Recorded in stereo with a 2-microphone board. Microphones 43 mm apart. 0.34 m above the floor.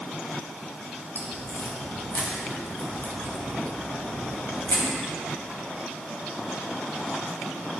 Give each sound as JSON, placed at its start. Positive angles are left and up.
{"t": 1.1, "sound": "a crack", "side_deg": 55, "distance_m": 1.8}